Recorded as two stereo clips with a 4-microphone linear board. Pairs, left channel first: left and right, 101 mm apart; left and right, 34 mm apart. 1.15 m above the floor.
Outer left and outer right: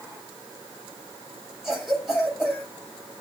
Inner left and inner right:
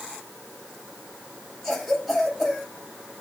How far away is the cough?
About 7.5 m.